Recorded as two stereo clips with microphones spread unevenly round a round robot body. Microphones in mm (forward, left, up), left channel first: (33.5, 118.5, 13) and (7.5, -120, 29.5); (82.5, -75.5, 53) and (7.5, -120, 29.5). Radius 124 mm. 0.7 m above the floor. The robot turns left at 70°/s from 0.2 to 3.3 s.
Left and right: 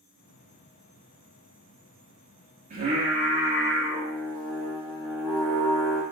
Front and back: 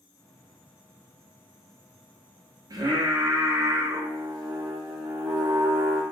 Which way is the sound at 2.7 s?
155° right.